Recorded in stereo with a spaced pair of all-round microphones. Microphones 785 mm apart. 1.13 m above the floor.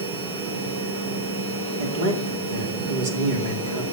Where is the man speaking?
70° right (ahead or behind), 3 m.